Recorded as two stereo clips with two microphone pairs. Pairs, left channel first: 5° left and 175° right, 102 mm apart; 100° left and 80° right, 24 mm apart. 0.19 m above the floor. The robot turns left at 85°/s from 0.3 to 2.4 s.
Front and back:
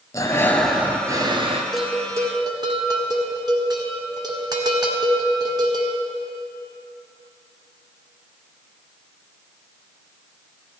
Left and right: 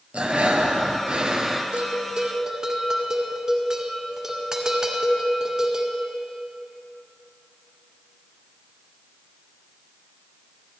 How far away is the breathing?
About 1.0 m.